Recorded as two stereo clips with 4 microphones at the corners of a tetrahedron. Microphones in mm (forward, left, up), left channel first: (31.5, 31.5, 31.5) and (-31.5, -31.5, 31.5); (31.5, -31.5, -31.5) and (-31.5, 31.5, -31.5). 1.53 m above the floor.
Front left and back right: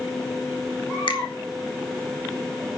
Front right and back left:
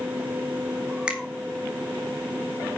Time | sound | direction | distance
1.1 | a finger snap | 55° left | 1.9 m